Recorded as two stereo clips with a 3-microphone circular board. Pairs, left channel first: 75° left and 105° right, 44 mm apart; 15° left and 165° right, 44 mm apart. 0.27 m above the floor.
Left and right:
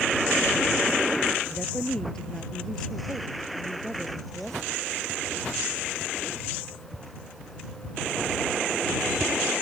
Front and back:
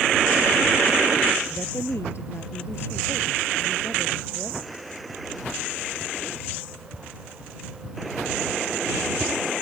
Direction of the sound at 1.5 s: 5° right.